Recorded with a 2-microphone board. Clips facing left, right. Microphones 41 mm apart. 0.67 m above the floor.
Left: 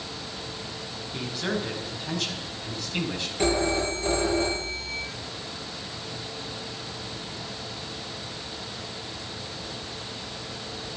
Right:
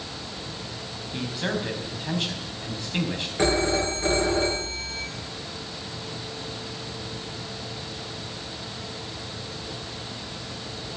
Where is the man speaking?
25° right (ahead or behind), 4.5 m.